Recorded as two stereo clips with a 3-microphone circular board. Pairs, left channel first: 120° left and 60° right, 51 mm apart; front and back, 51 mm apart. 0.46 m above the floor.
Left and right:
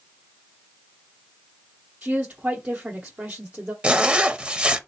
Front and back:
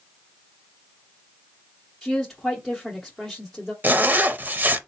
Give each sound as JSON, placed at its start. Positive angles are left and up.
{"t": 2.0, "sound": "a woman speaking", "azimuth_deg": -90, "distance_m": 1.1}
{"t": 3.8, "sound": "a zipper", "azimuth_deg": -125, "distance_m": 0.5}